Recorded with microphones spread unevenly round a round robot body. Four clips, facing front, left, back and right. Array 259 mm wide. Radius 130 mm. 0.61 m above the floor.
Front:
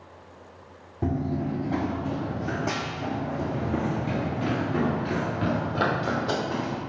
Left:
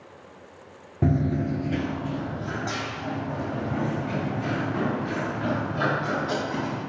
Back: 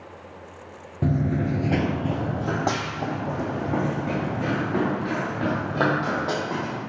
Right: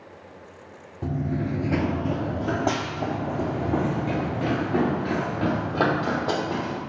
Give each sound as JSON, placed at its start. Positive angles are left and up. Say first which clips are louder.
{"t": 1.0, "sound": "running footsteps", "louder": "left 3 dB, back 3 dB", "azimuth_deg": 100, "distance_m": 0.6}